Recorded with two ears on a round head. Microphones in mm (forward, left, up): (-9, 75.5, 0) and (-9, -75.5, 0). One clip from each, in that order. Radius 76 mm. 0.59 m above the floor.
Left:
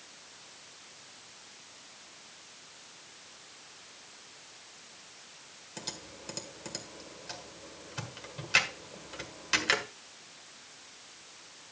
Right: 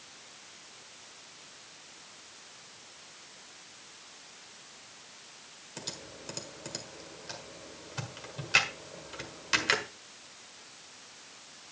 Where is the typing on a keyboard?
Centre (ahead or behind), 1.5 m.